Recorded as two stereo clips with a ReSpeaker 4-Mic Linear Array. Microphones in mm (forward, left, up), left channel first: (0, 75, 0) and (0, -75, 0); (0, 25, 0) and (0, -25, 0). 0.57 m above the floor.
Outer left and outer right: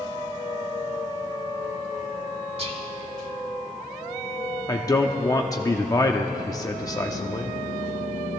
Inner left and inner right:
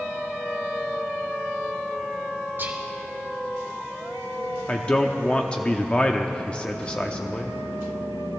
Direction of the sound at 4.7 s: 25° left (ahead or behind).